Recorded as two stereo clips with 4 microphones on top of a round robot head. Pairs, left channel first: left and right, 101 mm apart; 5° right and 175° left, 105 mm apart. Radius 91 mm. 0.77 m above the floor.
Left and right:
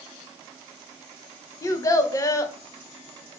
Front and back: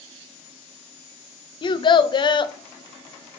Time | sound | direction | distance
1.6 | a child speaking | 35° left | 0.5 m